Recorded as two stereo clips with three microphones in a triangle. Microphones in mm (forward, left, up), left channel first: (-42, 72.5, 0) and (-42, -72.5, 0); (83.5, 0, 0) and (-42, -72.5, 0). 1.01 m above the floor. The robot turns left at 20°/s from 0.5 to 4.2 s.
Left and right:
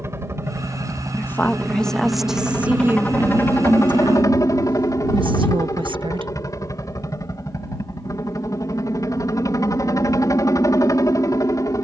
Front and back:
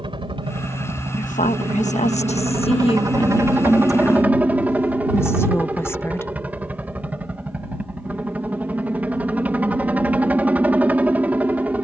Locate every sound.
0.0 s a helicopter: 150° right; by 11.8 s 140° left
1.2 s a woman speaking: 20° left; by 6.3 s 40° right